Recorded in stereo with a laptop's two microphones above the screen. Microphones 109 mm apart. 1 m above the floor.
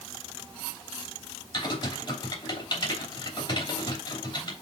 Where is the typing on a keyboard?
50° left (ahead or behind), 3 m.